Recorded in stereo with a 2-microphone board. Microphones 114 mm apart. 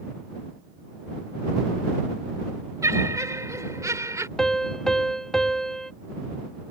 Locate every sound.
2.8 s laughter: 30° right (ahead or behind)
4.4 s a piano: 5° left (ahead or behind)